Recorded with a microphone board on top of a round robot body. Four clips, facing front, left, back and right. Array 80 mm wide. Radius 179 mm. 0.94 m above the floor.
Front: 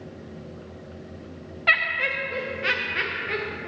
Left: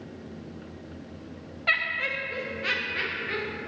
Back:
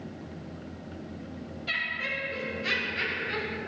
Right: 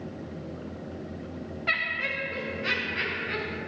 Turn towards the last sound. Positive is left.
turn(degrees=5)